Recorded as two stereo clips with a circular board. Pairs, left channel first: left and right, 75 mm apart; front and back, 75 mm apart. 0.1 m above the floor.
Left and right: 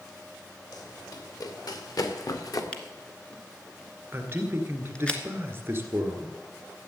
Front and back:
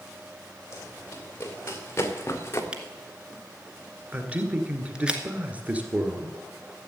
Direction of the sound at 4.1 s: 125° right.